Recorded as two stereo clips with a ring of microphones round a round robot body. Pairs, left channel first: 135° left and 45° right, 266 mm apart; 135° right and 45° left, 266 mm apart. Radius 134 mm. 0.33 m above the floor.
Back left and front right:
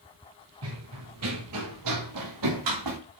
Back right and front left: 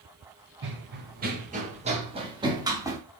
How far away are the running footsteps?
About 3.5 m.